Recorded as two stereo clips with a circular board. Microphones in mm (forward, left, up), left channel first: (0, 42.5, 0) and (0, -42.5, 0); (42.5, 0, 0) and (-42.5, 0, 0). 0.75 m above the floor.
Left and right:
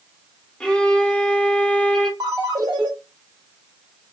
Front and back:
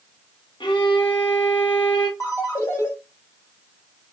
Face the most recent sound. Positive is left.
turn(degrees=-55)